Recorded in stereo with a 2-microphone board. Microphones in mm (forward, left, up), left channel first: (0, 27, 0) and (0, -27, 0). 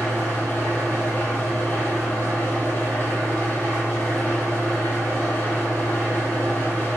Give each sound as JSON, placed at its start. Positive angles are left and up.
{"t": 0.0, "sound": "an engine running", "side_deg": 35, "distance_m": 1.4}